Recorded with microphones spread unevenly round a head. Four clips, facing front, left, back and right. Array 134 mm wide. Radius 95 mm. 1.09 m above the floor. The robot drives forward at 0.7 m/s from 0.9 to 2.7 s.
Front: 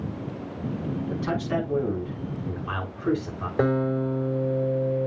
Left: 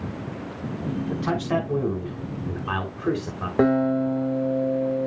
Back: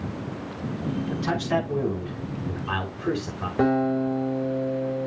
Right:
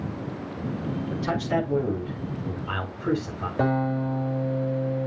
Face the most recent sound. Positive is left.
turn(degrees=75)